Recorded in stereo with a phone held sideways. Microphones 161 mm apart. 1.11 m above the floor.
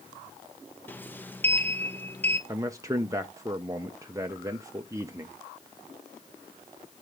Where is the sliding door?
10° left (ahead or behind), 0.6 m.